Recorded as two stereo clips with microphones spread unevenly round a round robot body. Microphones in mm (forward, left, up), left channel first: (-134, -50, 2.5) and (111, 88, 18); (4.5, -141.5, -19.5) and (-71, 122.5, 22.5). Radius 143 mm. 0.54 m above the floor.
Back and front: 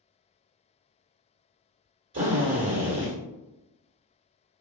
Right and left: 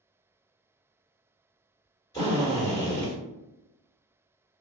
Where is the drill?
10° right, 1.8 m.